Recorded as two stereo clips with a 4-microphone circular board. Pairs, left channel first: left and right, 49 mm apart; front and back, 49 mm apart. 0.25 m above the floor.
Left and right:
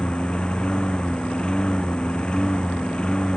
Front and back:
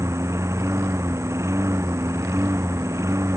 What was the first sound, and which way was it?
A lawn mower, 160° left.